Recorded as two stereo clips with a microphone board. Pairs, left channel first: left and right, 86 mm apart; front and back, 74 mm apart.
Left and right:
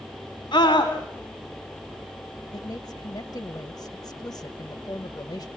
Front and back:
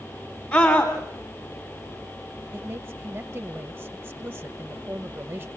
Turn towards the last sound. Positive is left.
turn(degrees=115)